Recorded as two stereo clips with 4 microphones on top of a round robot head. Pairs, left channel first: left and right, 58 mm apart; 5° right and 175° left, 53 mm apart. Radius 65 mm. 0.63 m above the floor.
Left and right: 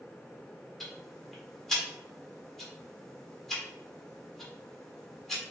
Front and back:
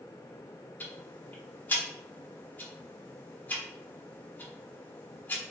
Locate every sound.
0.8 s ticking: 15° left, 1.1 m